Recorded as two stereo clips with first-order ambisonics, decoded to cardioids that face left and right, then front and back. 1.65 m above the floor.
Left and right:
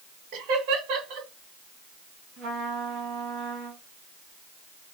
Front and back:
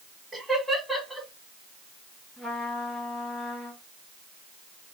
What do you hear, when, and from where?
0.3 s laughter: 95° right, 1.5 m
2.4 s a trumpet: 80° right, 2.5 m